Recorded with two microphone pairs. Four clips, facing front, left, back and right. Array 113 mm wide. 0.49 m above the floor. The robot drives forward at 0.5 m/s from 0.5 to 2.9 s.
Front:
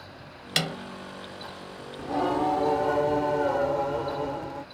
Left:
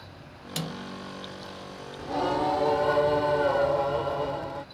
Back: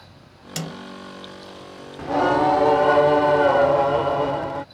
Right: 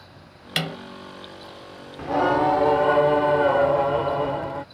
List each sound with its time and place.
0.6 s a snare drum: 55° right; by 0.8 s 60° right
2.0 s singing: 135° right; by 4.7 s 155° right